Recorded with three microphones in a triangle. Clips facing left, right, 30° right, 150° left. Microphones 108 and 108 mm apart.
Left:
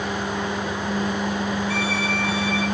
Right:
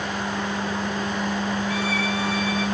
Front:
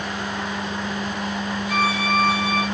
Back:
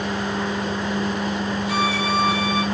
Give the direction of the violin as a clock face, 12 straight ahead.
9 o'clock.